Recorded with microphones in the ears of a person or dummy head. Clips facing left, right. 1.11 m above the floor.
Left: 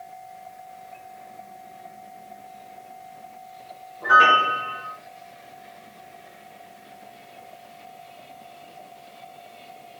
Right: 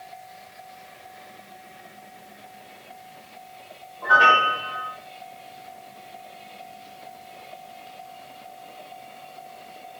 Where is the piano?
25° left (ahead or behind), 0.6 m.